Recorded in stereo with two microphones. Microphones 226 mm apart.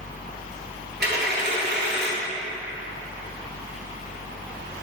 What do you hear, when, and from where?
1.0 s a dropped coin: 50° right (ahead or behind), 1.5 m